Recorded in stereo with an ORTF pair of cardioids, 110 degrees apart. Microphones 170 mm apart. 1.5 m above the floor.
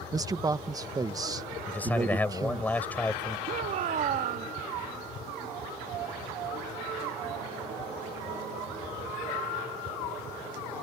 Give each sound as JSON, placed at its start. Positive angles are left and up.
{"t": 0.1, "sound": "a man speaking", "azimuth_deg": -20}
{"t": 1.7, "sound": "a man speaking", "azimuth_deg": 10}
{"t": 3.5, "sound": "a shout", "azimuth_deg": -50}